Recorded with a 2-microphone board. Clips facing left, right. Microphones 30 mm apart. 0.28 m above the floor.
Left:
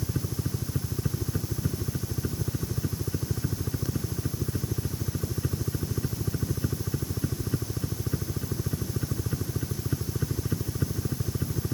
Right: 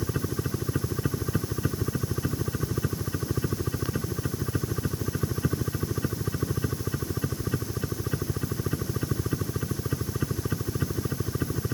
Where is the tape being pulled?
I don't hear tape being pulled.